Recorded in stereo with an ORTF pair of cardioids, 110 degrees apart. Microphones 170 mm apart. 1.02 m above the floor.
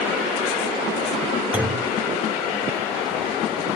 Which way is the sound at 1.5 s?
10° right.